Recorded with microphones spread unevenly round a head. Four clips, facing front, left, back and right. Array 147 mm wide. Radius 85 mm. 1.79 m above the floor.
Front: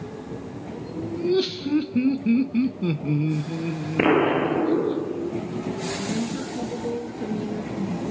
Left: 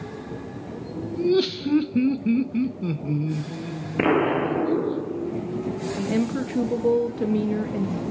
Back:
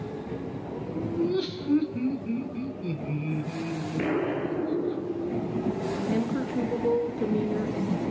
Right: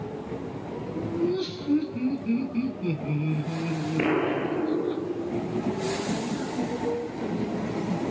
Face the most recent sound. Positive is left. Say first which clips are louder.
# left 5 dB, even
turn(degrees=90)